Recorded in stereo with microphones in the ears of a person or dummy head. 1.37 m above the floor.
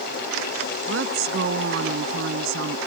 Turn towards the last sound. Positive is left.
turn(degrees=-85)